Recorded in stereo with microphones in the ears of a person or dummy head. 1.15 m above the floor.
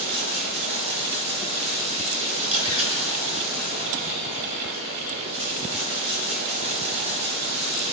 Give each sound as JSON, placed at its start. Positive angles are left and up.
{"t": 0.0, "sound": "running water", "side_deg": -30, "distance_m": 3.5}
{"t": 2.4, "sound": "a camera shutter", "side_deg": -30, "distance_m": 4.0}